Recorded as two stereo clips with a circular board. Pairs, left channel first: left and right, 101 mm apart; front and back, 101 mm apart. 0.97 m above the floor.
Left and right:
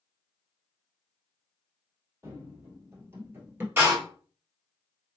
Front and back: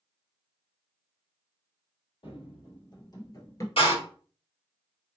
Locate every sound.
2.2 s running footsteps: 30° right, 1.9 m; by 3.7 s 35° right, 1.1 m
3.8 s a door slam: 20° right, 1.9 m